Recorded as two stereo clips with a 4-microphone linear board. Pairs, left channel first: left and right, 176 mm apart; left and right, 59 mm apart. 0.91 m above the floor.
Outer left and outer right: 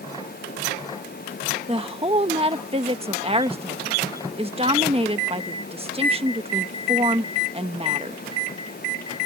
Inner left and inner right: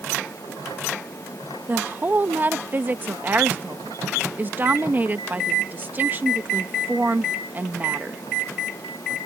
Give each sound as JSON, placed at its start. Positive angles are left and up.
{"t": 1.7, "sound": "a woman speaking", "side_deg": -35}